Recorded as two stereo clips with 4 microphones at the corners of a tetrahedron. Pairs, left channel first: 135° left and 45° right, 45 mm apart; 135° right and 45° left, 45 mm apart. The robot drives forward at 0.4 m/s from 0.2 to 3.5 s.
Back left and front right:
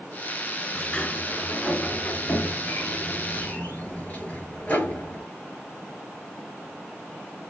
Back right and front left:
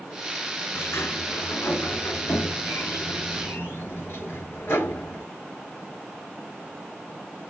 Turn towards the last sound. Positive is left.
turn(degrees=-165)